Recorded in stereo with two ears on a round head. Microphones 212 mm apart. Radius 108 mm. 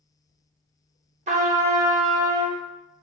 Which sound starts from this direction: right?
A trumpet, at 1.3 s.